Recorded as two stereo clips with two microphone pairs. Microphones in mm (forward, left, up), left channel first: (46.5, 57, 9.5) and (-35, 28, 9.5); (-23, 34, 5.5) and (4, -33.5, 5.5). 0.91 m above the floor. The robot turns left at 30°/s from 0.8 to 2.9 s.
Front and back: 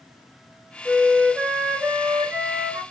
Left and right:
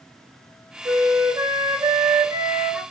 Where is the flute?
85° right, 1.1 m; by 2.8 s 145° right, 1.1 m.